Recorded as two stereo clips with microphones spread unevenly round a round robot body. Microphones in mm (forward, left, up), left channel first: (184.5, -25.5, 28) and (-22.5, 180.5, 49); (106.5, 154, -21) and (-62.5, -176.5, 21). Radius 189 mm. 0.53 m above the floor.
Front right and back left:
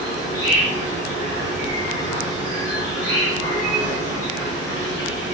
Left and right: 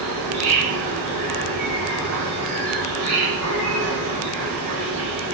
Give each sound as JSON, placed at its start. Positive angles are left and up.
{"t": 0.0, "sound": "an insect", "azimuth_deg": -150, "distance_m": 2.5}